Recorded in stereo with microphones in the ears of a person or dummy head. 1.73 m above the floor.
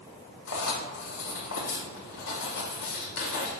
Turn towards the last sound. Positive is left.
turn(degrees=70)  # may be behind; listen again after turning